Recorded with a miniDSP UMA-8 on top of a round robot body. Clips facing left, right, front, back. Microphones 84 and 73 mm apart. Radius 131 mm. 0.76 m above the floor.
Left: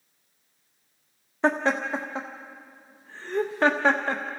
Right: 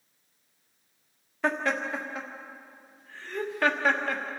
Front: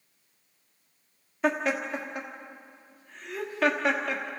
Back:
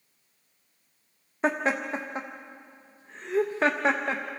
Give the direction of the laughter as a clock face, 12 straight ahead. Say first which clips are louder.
Left 4 dB, back 1 dB; 7 o'clock.